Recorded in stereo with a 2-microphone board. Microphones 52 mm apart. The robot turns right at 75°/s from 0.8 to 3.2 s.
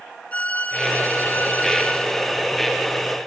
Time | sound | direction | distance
0.3 | a violin | 50° left | 1.0 m